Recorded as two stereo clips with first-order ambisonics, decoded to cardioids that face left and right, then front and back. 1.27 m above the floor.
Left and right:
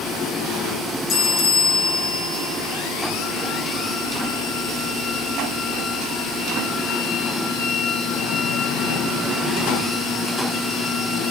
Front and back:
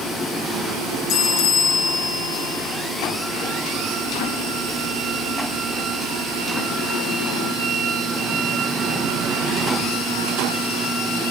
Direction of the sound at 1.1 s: 40° left.